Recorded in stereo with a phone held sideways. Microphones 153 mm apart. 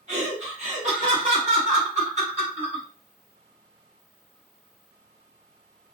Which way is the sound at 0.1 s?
50° right (ahead or behind).